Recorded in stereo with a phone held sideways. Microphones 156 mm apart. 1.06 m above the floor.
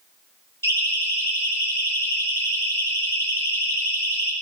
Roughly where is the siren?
Centre.